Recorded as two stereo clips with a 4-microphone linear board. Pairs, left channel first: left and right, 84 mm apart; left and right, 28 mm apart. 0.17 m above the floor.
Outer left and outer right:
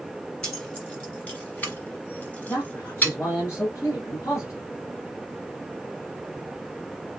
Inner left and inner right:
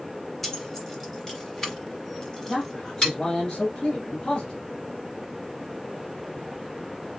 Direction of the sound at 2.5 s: 35° left (ahead or behind).